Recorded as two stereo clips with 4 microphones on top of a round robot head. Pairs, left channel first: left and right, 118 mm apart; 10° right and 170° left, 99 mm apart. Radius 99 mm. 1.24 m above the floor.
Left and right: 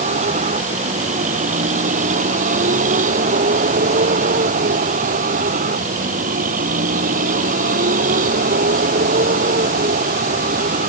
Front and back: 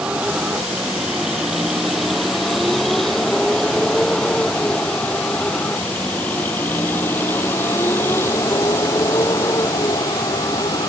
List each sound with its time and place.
0.0 s a vehicle: 110° right; by 10.9 s 75° right